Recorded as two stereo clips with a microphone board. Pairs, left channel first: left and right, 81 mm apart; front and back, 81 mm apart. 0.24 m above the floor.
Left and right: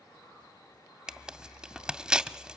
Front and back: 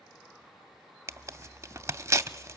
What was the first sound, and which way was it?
Tearing paper, 165° right.